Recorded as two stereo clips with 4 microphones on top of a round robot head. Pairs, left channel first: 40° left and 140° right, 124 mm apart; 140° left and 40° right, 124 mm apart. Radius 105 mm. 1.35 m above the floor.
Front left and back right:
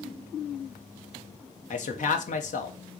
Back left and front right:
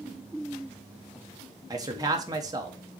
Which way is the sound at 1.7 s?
20° left.